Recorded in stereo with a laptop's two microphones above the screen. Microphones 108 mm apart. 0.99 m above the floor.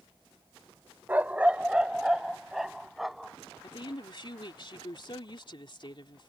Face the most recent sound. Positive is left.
turn(degrees=50)  # may be behind; listen again after turning